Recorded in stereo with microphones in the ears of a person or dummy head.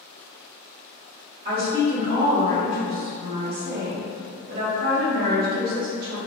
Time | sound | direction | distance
1.4 | a woman speaking | 55° right (ahead or behind) | 1.2 m